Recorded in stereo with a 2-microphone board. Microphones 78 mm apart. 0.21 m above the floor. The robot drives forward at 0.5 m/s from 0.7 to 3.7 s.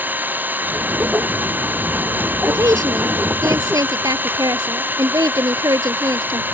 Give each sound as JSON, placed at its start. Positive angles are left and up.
{"t": 0.0, "sound": "an engine running", "side_deg": -25}
{"t": 2.5, "sound": "a woman speaking", "side_deg": -45}